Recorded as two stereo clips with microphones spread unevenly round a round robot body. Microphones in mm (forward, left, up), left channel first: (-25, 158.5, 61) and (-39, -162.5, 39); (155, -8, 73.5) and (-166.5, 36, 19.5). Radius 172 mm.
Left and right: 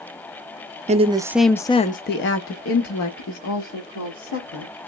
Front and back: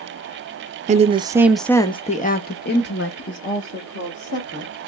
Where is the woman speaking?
145° right, 0.6 m; by 4.9 s 45° left, 1.8 m.